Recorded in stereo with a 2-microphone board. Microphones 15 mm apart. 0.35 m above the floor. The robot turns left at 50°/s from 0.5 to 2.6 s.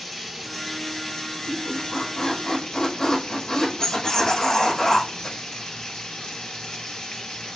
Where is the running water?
Straight behind, 4 m; by 7.6 s 75° left, 4 m.